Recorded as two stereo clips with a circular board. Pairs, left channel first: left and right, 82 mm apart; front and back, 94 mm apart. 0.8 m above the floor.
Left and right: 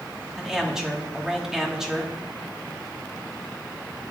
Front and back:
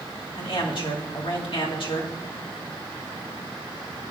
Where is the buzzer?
No buzzer in this recording.